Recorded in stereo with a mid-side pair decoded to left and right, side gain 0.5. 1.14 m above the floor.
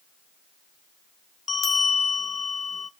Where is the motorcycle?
I don't hear a motorcycle.